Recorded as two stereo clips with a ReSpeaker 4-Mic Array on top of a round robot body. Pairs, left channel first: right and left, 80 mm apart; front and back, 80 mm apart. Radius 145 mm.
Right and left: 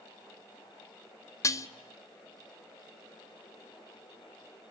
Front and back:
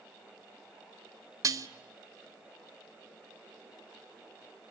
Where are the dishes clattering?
135° right, 1.1 m.